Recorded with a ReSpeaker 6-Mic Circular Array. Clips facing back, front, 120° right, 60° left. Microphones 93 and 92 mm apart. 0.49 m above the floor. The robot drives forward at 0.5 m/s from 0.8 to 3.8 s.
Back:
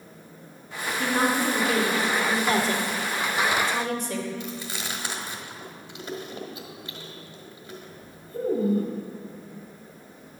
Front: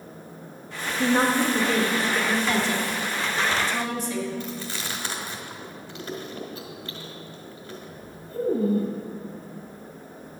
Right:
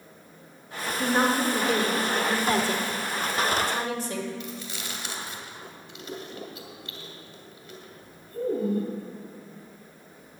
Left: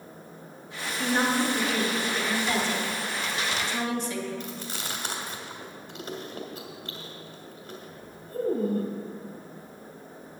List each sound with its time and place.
1.0 s a woman speaking: 70° right, 1.8 m; by 2.4 s 95° right, 1.8 m
2.5 s a woman speaking: 145° right, 0.9 m; by 4.3 s 165° right, 1.4 m
4.4 s chewing: 105° left, 1.5 m